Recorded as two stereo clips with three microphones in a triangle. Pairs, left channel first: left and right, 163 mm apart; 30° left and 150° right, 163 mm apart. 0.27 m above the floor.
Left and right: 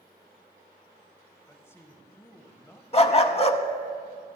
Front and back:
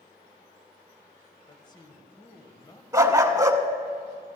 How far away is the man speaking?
About 0.9 m.